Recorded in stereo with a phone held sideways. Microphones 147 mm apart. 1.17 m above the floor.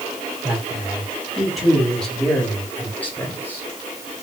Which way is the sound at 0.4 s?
10° right (ahead or behind).